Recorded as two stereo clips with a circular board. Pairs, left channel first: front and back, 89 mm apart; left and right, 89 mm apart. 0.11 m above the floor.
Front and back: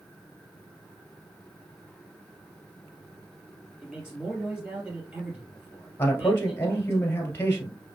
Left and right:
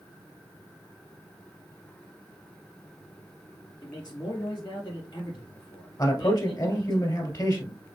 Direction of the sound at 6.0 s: 60° left.